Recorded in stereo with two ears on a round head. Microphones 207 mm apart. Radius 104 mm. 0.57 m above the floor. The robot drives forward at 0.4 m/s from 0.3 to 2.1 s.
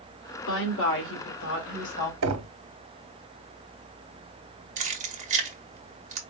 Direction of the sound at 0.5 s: 60° left (ahead or behind).